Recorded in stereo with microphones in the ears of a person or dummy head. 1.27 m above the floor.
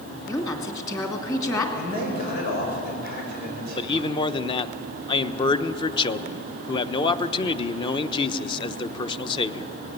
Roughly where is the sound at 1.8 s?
Left.